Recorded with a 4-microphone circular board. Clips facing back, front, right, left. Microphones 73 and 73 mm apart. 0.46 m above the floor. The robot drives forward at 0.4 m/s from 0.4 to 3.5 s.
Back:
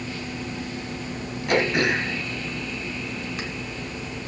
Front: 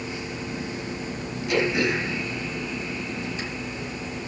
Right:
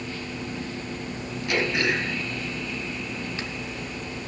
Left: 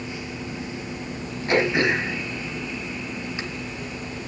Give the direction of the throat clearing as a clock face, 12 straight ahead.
7 o'clock.